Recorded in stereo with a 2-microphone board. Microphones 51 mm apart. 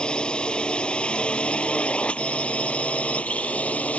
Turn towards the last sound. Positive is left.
turn(degrees=30)  # may be behind; listen again after turning